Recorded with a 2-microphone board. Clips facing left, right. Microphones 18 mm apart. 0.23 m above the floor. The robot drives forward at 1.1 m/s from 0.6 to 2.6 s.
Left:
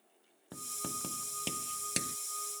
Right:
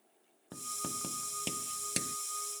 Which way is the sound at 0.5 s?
Centre (ahead or behind).